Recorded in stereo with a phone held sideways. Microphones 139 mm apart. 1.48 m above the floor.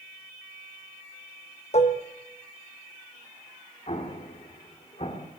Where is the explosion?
50° left (ahead or behind), 1.9 m.